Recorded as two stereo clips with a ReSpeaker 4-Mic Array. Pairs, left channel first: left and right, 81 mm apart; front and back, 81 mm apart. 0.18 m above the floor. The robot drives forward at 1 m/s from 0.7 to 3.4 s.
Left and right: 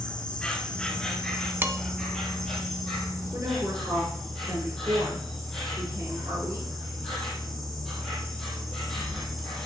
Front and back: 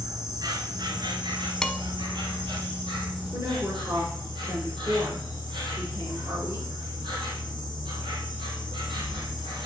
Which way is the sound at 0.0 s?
165° left.